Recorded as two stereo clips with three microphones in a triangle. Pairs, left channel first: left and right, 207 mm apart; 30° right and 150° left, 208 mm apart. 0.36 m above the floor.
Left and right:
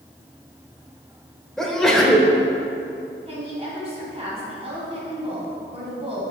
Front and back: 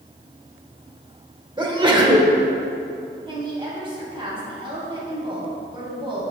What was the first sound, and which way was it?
A sneeze, 175° left.